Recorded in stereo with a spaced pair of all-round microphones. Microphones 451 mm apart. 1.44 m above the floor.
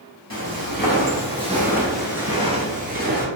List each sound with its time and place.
0.3 s footsteps: 30° left (ahead or behind), 1.8 m; by 3.2 s 25° right (ahead or behind), 1.6 m